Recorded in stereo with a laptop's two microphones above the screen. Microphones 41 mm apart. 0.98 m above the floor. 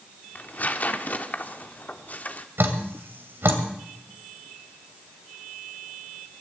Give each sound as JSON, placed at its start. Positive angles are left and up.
{"t": 0.3, "sound": "tearing paper", "side_deg": 40, "distance_m": 1.1}
{"t": 2.6, "sound": "dripping", "side_deg": -65, "distance_m": 2.0}